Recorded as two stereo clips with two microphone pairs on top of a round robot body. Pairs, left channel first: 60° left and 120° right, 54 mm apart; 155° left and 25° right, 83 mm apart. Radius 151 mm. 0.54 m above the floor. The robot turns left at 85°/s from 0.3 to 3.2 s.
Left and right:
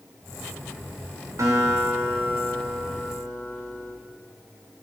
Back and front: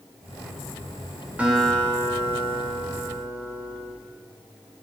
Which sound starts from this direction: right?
A guitar, at 1.4 s.